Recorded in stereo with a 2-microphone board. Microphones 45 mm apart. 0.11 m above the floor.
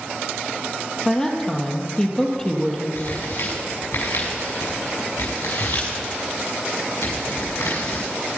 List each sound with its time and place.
1.1 s a woman speaking: 15° left (ahead or behind), 3 m
3.0 s tearing paper: 75° left (ahead or behind), 6.5 m